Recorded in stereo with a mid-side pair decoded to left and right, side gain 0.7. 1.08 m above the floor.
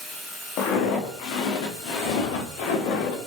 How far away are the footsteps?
About 4.5 m.